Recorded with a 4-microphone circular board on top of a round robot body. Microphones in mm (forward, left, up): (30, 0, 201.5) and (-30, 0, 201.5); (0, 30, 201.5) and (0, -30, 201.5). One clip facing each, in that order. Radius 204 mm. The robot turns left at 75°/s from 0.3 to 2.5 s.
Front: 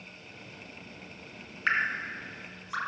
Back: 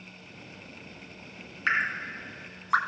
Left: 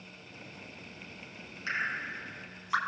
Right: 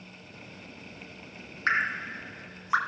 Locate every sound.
1.7 s dripping: 90° right, 2.5 m; by 2.8 s 150° right, 2.5 m